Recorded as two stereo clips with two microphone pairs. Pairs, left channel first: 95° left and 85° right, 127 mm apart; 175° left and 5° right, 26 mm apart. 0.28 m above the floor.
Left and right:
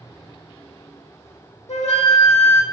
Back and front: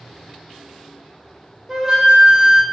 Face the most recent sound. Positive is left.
turn(degrees=70)